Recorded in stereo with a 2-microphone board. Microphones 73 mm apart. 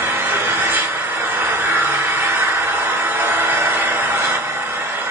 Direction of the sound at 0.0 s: 30° right (ahead or behind).